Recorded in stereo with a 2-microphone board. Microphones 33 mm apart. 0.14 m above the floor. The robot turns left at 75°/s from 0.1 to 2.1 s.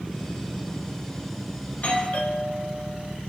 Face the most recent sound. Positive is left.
turn(degrees=60)